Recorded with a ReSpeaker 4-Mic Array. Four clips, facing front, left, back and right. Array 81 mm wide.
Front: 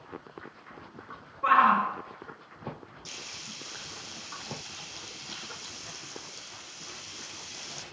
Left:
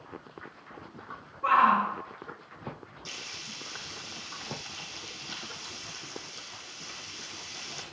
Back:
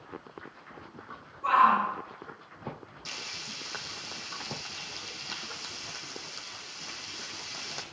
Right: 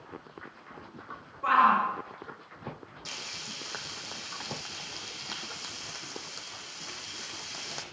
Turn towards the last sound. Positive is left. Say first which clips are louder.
# right 2 dB, back 3 dB
turn(degrees=-125)